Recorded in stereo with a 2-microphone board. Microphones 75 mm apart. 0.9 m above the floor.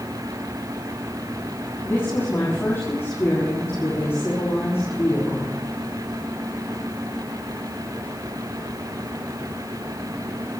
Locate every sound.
1.8 s a woman speaking: 35° left (ahead or behind), 7.5 m